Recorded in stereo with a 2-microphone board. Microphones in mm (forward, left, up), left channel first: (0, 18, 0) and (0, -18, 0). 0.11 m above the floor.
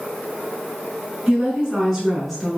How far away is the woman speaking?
About 1.1 m.